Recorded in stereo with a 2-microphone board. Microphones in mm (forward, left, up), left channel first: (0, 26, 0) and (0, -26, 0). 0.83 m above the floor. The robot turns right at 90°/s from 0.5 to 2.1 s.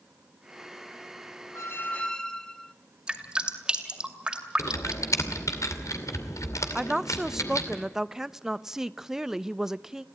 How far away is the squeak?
About 1.0 m.